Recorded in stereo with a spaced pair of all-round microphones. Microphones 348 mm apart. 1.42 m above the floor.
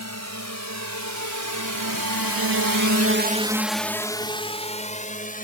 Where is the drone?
50° right (ahead or behind); by 5.4 s 25° left (ahead or behind).